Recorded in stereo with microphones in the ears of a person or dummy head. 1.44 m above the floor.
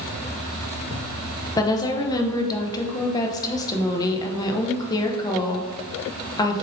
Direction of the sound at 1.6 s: 15° left (ahead or behind).